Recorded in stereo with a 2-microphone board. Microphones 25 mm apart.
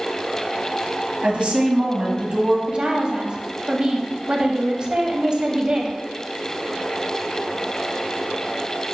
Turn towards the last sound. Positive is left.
turn(degrees=-35)  # may be behind; listen again after turning